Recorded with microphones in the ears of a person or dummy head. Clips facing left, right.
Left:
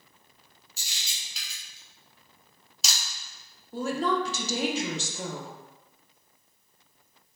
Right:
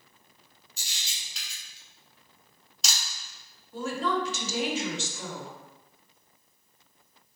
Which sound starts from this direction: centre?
A camera shutter, at 0.8 s.